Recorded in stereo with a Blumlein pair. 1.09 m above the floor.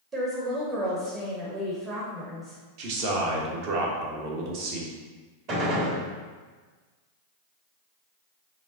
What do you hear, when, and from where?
0.1 s a woman speaking: 25° right, 1.1 m
2.8 s a man speaking: 45° right, 1.2 m
5.5 s a gunshot: 35° right, 1.4 m